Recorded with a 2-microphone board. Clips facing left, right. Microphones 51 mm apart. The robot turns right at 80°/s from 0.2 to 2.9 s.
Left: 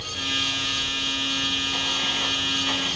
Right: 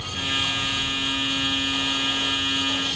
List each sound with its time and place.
0.0 s running water: 100° right, 1.0 m; by 3.0 s 115° left, 1.0 m